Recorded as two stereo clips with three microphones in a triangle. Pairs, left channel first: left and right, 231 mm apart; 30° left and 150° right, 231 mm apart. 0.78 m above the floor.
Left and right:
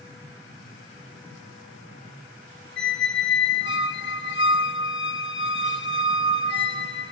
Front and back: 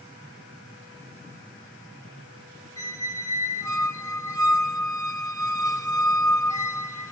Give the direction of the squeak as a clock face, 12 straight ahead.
9 o'clock.